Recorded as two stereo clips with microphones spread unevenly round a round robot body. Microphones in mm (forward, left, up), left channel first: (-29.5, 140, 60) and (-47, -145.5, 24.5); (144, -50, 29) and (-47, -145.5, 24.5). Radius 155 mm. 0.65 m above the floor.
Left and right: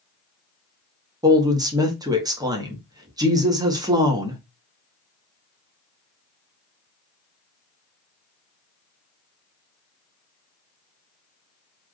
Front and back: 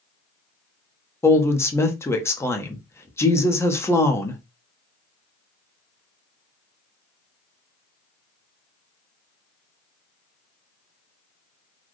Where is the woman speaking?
40° right, 1.1 m.